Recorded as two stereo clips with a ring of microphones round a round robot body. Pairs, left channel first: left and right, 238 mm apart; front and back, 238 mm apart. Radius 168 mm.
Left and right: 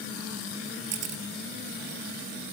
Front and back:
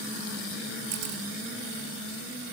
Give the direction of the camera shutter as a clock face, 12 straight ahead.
4 o'clock.